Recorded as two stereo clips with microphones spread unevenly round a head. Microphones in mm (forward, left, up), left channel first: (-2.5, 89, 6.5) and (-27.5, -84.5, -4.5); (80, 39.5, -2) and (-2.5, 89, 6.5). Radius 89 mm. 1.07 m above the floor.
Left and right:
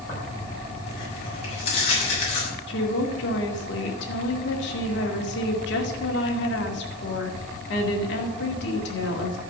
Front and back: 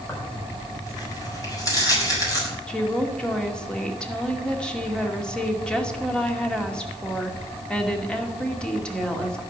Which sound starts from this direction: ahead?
Tearing paper, at 0.1 s.